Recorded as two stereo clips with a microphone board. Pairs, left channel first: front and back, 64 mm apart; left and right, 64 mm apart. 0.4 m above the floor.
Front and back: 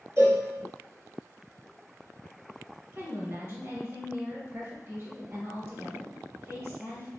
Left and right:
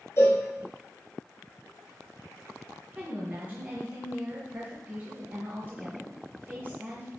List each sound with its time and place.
0.2 s a cowbell: 135° left, 3 m
2.9 s a woman speaking: 145° right, 1.8 m